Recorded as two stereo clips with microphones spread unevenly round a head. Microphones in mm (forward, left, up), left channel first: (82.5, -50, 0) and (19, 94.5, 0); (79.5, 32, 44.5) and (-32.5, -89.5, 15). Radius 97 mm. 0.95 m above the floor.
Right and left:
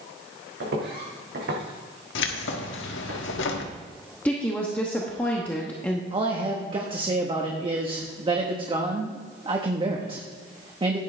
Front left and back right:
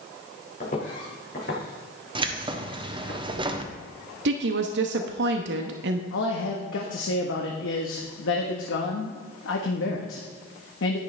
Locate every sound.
0.6 s footsteps: 100° left, 4 m; by 3.1 s 80° left, 4.5 m
2.1 s keys jangling: 70° right, 1.3 m
4.2 s a woman speaking: 150° right, 0.9 m
6.1 s a man speaking: 55° left, 1.3 m